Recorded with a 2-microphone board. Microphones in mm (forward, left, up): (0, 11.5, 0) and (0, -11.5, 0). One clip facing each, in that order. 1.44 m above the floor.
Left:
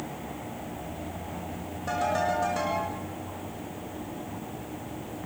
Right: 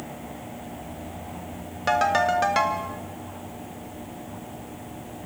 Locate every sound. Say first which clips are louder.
1.9 s a ringtone: right 6 dB; 65° right (ahead or behind), 1.6 m